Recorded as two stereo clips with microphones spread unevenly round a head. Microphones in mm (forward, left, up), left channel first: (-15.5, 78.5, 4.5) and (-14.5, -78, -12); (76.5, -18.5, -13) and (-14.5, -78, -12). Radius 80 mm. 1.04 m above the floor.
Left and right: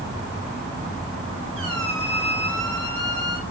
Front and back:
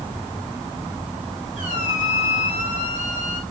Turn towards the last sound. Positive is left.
turn(degrees=-145)